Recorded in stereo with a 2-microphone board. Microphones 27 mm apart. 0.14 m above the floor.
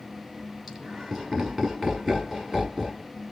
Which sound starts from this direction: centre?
Laughter, at 0.7 s.